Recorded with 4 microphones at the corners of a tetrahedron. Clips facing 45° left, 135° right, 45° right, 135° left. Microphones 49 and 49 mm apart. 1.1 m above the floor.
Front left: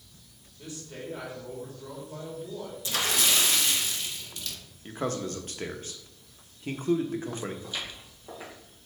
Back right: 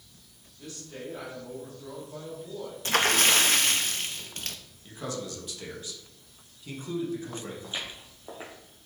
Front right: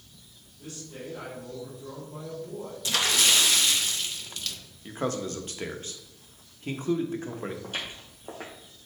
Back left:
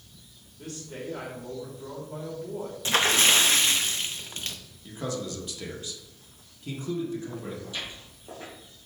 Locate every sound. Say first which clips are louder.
0.6 s a man speaking: even, back left 3 dB; 120° left, 3 m
2.9 s a splash: back right 5 dB, back left 3 dB; 170° right, 0.7 m
4.8 s a man speaking: front left 4 dB, front right 3 dB; straight ahead, 1.0 m
7.6 s footsteps: even, front right 1 dB; 70° right, 2.0 m